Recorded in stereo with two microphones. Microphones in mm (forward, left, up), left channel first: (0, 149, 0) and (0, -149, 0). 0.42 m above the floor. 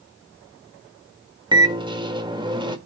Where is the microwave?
15° right (ahead or behind), 1.2 m.